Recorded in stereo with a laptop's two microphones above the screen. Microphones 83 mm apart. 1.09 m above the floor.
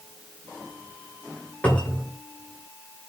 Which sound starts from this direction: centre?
A cupboard door, at 1.6 s.